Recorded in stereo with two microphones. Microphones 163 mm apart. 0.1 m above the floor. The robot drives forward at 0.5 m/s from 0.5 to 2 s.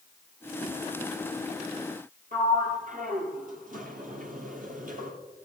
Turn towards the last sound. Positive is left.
turn(degrees=-55)  # may be behind; listen again after turning